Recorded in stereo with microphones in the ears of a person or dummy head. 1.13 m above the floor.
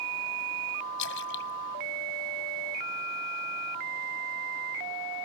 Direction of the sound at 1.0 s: 65° left (ahead or behind).